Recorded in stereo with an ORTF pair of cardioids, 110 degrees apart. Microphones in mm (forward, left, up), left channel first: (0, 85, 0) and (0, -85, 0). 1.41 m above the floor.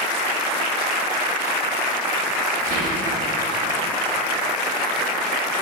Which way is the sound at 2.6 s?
60° right.